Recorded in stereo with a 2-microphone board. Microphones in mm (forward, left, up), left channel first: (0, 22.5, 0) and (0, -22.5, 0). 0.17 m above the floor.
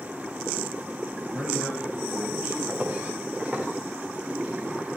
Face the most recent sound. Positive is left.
turn(degrees=-10)  # may be behind; listen again after turning